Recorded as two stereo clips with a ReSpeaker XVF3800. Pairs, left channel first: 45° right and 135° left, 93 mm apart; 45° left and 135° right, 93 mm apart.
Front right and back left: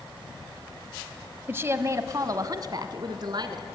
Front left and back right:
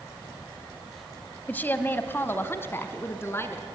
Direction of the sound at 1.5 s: 95° left.